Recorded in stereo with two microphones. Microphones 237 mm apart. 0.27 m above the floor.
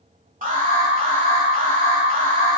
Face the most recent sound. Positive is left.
turn(degrees=-35)  # may be behind; listen again after turning